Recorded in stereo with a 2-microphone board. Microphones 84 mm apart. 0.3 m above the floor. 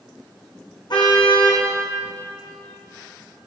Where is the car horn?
60° left (ahead or behind), 7 m.